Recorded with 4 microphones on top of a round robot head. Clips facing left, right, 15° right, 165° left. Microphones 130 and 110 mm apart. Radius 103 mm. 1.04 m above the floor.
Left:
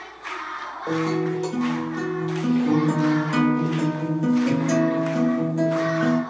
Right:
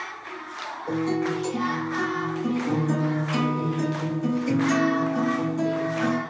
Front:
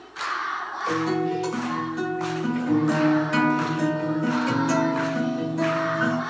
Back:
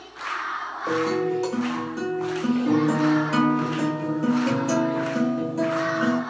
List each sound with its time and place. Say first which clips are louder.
0.9 s a guitar: left 2 dB, back 1 dB; 120° left, 1.5 m